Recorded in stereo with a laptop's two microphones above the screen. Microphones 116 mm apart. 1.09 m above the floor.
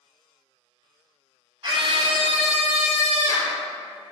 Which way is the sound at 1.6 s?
40° right (ahead or behind).